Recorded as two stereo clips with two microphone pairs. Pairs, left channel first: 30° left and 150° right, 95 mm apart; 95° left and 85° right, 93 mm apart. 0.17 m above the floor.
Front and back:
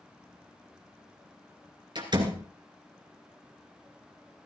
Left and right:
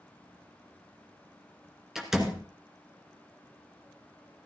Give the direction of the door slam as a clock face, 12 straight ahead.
6 o'clock.